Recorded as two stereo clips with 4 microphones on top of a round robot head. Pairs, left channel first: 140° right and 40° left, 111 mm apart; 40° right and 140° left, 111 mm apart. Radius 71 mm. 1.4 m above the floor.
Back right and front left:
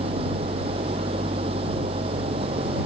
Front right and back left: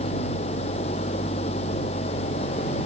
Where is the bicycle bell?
No bicycle bell in this recording.